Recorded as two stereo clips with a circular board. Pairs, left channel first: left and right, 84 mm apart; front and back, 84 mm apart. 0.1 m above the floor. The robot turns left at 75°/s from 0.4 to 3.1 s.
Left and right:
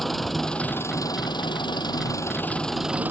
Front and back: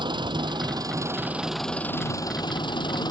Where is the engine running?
Straight behind; by 3.1 s 25° right.